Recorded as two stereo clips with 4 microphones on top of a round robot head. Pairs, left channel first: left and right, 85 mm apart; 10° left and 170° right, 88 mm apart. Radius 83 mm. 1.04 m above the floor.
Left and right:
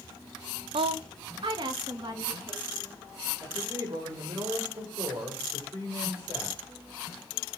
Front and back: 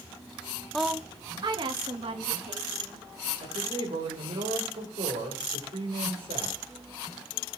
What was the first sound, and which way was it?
A woman speaking, 80° right.